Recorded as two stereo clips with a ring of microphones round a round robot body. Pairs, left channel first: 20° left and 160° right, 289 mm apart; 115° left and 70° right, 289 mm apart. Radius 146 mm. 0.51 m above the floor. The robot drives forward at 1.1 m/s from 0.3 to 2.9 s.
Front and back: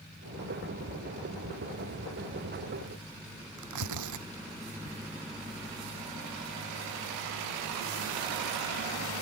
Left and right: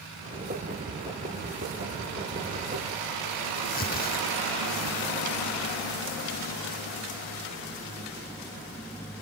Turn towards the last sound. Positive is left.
turn(degrees=175)